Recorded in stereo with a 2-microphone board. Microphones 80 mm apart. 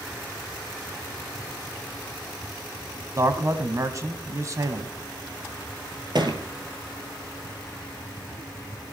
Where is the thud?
65° right (ahead or behind), 2.5 m.